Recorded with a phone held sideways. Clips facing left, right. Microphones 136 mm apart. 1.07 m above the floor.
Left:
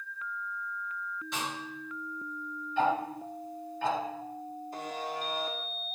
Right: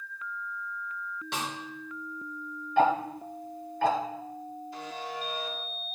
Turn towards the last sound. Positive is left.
turn(degrees=45)  # may be behind; listen again after turning